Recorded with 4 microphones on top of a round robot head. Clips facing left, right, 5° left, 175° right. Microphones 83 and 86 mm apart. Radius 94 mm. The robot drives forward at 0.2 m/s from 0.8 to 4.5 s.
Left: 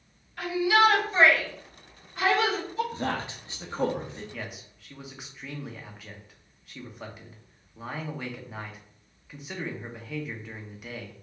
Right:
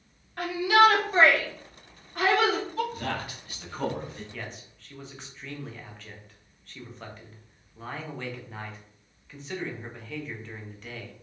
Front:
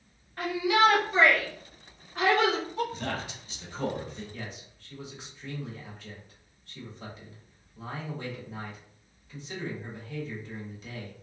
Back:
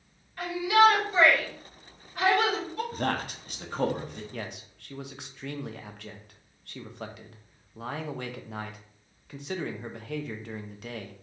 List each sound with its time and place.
0.4 s a shout: 50° right, 2.0 m; by 2.8 s 60° right, 1.7 m
2.9 s a man speaking: 150° left, 0.6 m; by 4.2 s 160° left, 0.8 m
4.3 s a man speaking: 170° left, 0.6 m; by 11.1 s 175° left, 0.6 m